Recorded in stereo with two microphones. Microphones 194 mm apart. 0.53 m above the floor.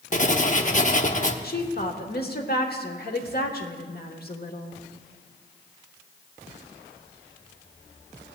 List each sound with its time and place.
0.1 s writing: 40° left (ahead or behind), 0.7 m
1.4 s a woman speaking: 50° left (ahead or behind), 1.2 m